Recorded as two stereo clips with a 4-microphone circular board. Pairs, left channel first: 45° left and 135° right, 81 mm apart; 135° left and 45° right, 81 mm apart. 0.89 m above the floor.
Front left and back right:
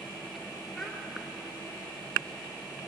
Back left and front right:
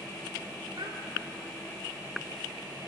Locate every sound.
0.8 s a child speaking: 45° right, 1.0 m